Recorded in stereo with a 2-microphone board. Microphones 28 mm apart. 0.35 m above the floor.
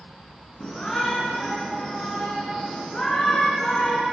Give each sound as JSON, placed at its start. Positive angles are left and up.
{"t": 0.6, "sound": "a shout", "side_deg": 40, "distance_m": 4.0}